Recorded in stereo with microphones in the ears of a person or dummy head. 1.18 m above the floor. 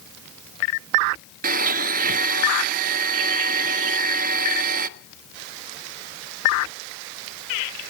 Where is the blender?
40° right (ahead or behind), 0.7 m.